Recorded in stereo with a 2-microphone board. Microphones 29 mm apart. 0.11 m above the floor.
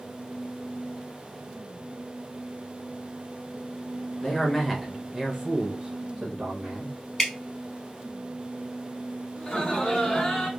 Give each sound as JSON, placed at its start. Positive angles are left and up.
{"t": 4.2, "sound": "a man speaking", "side_deg": 25, "distance_m": 1.2}
{"t": 7.2, "sound": "dripping", "side_deg": 15, "distance_m": 1.2}
{"t": 9.4, "sound": "laughter", "side_deg": 35, "distance_m": 1.6}